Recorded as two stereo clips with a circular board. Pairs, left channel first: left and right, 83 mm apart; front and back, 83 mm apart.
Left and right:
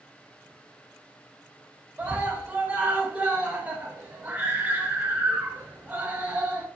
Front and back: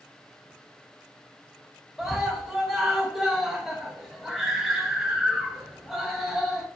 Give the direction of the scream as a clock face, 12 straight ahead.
3 o'clock.